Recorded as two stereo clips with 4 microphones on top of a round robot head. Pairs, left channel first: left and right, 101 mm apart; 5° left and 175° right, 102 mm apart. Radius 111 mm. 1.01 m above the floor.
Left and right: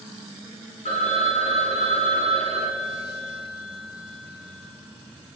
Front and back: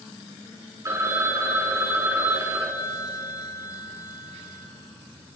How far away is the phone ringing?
About 1.6 m.